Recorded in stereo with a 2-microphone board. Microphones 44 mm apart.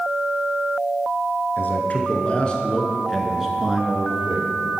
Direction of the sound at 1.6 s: 40° left (ahead or behind).